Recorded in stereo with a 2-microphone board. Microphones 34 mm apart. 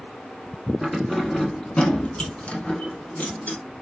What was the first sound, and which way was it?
Keys jangling, centre (ahead or behind).